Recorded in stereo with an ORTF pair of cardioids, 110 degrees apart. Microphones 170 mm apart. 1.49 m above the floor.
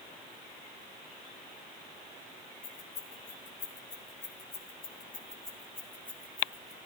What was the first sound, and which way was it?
Keys jangling, 70° left.